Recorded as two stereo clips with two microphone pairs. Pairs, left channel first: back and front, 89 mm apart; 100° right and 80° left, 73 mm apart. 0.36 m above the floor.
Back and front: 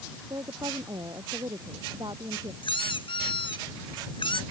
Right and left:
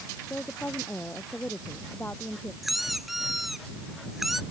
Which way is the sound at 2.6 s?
165° left.